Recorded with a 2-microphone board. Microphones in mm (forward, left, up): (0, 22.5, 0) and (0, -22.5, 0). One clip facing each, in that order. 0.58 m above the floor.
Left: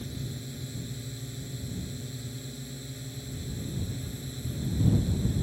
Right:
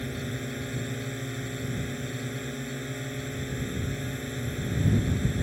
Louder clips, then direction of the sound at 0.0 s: Right 6 dB; 50° right (ahead or behind).